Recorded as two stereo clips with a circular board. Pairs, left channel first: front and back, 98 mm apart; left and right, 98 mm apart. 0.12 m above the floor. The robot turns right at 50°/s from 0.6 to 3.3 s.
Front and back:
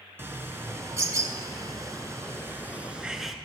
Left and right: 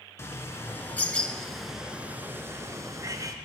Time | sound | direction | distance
0.2 | a bird | 130° left | 0.7 m